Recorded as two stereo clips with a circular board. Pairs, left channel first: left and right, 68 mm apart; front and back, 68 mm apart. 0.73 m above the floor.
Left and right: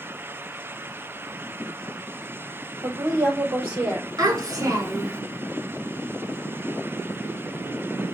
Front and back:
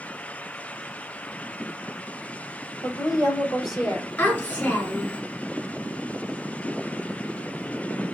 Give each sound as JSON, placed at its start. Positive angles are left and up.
{"t": 2.8, "sound": "a woman speaking", "azimuth_deg": -15, "distance_m": 2.0}
{"t": 4.2, "sound": "a child speaking", "azimuth_deg": -60, "distance_m": 1.9}